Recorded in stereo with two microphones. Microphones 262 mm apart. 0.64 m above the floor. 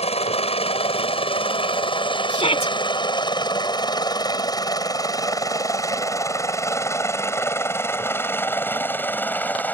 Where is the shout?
25° left (ahead or behind).